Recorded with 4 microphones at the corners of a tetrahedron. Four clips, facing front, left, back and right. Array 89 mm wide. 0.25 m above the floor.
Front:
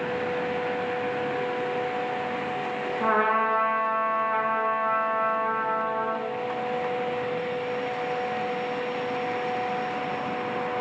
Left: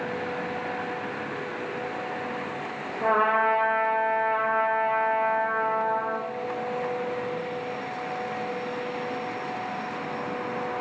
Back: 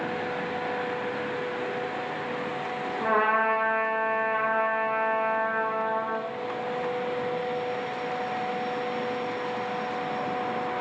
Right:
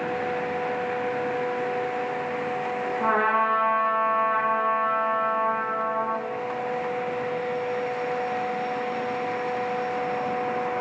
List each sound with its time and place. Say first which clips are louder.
3.0 s a trumpet: left 1 dB, even; 25° right, 1.3 m